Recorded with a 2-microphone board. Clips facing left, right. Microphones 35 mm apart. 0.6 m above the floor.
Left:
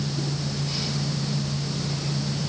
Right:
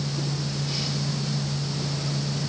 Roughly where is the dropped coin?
I don't hear a dropped coin.